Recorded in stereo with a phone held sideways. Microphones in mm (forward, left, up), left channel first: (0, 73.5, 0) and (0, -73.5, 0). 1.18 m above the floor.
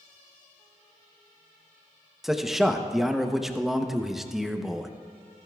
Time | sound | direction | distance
2.2 | a man speaking | centre (ahead or behind) | 0.7 m